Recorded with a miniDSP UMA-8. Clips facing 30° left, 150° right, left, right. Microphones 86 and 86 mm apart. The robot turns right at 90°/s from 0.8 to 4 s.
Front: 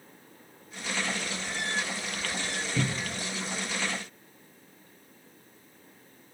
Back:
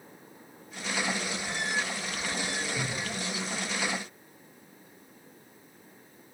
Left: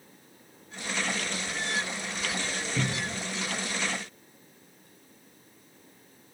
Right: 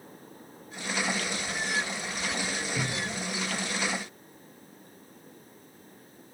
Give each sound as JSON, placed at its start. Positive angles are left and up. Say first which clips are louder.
{"t": 2.8, "sound": "a cupboard door", "louder": "front 2 dB, left 1 dB", "azimuth_deg": 20, "distance_m": 1.1}